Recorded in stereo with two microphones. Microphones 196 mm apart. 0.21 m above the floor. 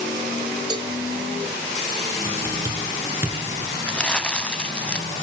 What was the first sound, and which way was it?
A cowbell, 20° right (ahead or behind).